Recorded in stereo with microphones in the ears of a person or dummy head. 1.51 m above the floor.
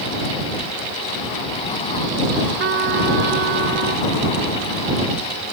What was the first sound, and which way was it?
A trumpet, 55° right (ahead or behind).